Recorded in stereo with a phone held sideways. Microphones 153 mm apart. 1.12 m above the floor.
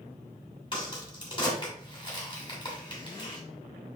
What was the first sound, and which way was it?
A crack, 30° left (ahead or behind).